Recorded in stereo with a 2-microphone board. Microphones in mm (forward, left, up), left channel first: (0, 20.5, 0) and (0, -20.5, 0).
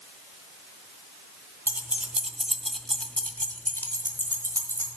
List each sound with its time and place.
1.7 s keys jangling: 45° right (ahead or behind), 0.8 m; by 4.9 s 70° left (ahead or behind), 1.6 m